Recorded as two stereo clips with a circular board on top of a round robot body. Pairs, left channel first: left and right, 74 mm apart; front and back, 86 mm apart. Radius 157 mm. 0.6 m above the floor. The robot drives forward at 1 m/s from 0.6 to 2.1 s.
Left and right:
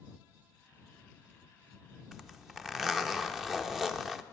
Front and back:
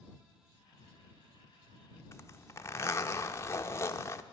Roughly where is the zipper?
Ahead.